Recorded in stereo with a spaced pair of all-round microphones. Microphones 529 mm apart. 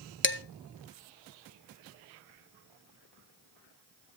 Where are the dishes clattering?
25° left (ahead or behind), 0.5 m.